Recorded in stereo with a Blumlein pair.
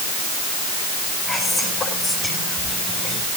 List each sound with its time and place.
1.3 s whispering: 20° left, 8 m